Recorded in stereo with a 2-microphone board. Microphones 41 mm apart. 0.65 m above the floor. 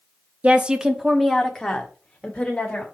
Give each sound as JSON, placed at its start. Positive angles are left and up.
{"t": 0.4, "sound": "a woman speaking", "side_deg": -35, "distance_m": 0.8}